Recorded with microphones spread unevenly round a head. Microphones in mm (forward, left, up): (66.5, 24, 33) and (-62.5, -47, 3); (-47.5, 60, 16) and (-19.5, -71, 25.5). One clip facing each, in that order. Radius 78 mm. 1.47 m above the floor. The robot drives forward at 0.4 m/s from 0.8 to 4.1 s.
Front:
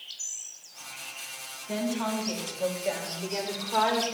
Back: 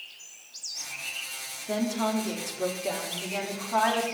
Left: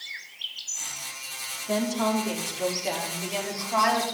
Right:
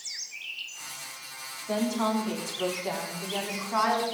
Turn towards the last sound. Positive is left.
turn(degrees=180)